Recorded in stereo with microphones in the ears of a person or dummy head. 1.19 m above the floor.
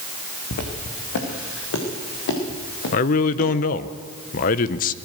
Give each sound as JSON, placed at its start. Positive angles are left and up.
{"t": 0.5, "sound": "footsteps", "side_deg": 55, "distance_m": 5.0}
{"t": 2.9, "sound": "a man speaking", "side_deg": 50, "distance_m": 1.0}